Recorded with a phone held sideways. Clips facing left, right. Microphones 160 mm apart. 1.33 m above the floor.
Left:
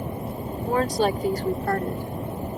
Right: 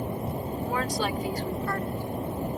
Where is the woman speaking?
40° left (ahead or behind); by 2.6 s 65° left (ahead or behind).